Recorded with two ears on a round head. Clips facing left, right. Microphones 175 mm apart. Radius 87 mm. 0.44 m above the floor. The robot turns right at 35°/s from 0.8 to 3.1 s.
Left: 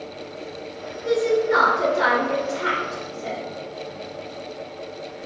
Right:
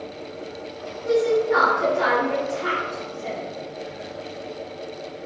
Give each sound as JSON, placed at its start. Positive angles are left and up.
{"t": 1.1, "sound": "a woman speaking", "side_deg": 35, "distance_m": 1.3}